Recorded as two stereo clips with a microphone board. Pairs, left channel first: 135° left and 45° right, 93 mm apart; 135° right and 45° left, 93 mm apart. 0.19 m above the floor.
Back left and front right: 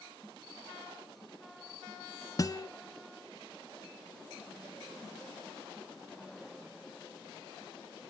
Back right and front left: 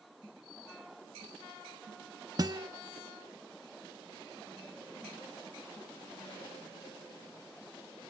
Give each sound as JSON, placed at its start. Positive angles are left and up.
{"t": 2.4, "sound": "a guitar", "azimuth_deg": 85, "distance_m": 0.7}